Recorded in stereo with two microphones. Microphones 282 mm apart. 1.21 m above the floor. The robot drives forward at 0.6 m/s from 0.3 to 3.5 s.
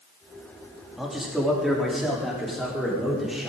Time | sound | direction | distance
1.0 | a man speaking | centre (ahead or behind) | 3 m